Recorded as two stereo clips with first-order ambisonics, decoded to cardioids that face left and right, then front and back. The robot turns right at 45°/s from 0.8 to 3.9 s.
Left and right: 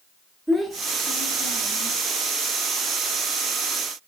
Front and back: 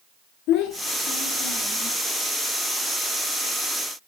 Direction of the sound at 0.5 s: 5° right.